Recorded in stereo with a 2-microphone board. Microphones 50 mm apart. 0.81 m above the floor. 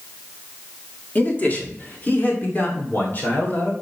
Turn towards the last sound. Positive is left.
turn(degrees=40)  # may be behind; listen again after turning